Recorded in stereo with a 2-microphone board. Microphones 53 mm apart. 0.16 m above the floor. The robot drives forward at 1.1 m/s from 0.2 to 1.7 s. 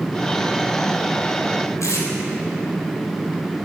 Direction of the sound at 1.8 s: 80° left.